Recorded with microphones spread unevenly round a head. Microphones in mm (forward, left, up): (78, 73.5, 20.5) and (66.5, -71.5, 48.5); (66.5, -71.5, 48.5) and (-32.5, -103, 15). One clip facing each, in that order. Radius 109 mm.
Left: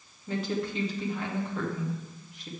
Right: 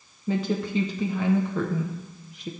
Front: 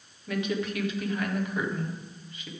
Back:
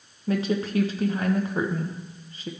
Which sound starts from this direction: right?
A woman speaking, at 0.3 s.